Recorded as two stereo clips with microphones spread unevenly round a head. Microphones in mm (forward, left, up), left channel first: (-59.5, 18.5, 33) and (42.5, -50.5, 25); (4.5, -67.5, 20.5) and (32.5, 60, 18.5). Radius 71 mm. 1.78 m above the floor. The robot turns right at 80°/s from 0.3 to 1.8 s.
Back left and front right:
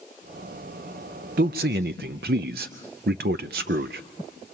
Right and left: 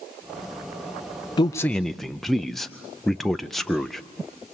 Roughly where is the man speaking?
Ahead right.